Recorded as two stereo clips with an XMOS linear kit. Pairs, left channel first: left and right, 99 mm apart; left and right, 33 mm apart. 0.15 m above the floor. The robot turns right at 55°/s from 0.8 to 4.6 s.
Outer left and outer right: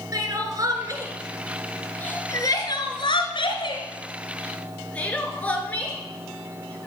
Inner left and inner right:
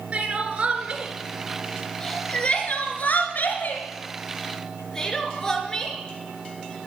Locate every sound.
0.1 s crying: 40° right (ahead or behind), 2.5 m; by 6.9 s 15° left (ahead or behind), 2.5 m